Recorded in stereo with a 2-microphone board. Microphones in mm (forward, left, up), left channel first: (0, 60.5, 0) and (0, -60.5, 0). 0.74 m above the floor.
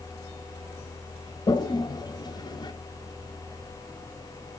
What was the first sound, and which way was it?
A toilet flushing, 35° left (ahead or behind).